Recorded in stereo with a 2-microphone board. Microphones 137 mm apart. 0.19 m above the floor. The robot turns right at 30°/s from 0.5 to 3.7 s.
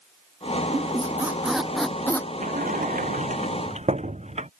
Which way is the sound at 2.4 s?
85° right.